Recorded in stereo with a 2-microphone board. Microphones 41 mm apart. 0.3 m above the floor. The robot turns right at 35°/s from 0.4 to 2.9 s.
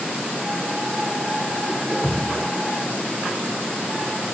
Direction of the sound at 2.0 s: 10° left (ahead or behind).